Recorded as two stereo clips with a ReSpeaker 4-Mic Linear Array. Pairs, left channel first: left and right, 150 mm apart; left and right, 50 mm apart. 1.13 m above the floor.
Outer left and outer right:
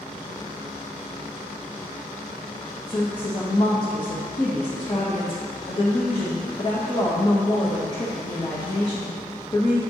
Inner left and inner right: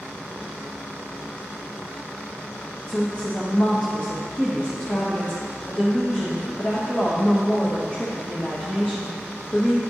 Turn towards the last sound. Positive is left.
turn(degrees=30)  # may be behind; listen again after turning